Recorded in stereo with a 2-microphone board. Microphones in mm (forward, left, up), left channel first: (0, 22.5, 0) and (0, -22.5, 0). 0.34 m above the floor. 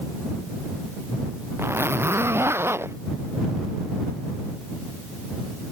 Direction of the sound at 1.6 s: 75° right (ahead or behind).